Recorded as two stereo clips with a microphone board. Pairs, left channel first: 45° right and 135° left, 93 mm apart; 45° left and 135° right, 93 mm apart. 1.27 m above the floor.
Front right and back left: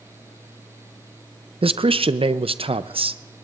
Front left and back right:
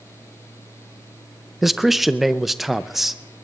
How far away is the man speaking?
About 0.5 m.